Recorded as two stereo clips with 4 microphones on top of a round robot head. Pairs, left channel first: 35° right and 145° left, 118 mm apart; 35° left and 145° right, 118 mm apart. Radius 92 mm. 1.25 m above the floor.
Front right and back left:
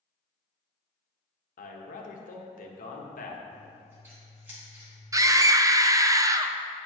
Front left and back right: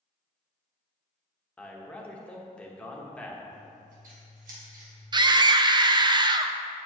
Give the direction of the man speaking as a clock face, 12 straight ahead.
1 o'clock.